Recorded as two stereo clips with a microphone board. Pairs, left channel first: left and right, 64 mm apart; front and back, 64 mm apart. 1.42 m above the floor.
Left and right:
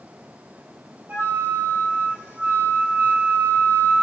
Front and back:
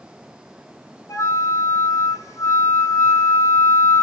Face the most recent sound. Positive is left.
turn(degrees=-25)